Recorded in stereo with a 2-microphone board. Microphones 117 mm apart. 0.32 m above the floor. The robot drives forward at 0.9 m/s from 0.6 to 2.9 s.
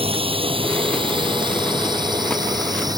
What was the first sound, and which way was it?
A drone, 55° right (ahead or behind).